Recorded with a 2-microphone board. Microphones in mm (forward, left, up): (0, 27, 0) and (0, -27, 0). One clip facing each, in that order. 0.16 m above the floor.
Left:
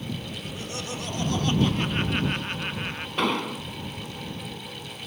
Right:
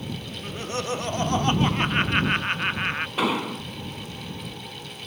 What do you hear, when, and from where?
0.4 s laughter: 35° right (ahead or behind); by 3.1 s 40° right (ahead or behind)
3.2 s an explosion: 5° right (ahead or behind)